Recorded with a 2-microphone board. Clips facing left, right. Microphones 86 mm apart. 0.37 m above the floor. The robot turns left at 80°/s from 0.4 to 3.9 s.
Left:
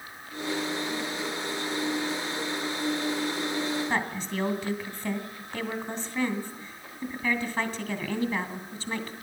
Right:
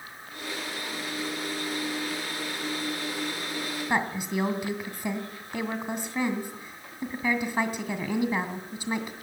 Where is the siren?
I don't hear a siren.